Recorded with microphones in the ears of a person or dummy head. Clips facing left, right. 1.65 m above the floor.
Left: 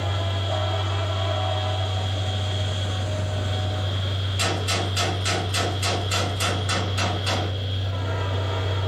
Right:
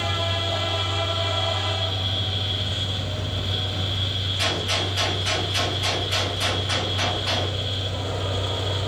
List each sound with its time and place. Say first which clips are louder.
0.0 s a fan: right 2 dB; 40° right (ahead or behind), 1.0 m
4.4 s a gunshot: left 1 dB; 50° left (ahead or behind), 1.1 m